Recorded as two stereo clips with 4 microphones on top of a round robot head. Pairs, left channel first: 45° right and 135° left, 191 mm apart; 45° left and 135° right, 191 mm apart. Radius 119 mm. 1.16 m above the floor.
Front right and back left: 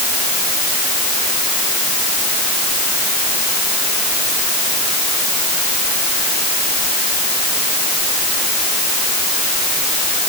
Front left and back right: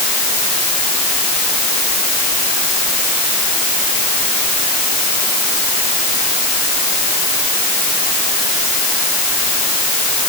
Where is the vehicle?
I don't hear a vehicle.